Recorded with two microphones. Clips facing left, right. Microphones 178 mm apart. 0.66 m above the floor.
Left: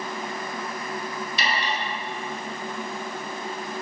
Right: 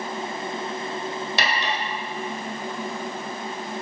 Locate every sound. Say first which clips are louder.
1.4 s cutlery clinking: even; 80° right, 1.9 m